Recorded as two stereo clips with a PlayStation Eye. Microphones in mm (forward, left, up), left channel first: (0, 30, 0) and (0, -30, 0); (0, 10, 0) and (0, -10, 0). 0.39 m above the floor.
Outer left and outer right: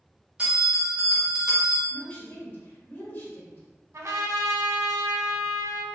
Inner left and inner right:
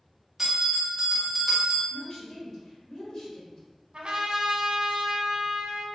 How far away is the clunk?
I don't hear a clunk.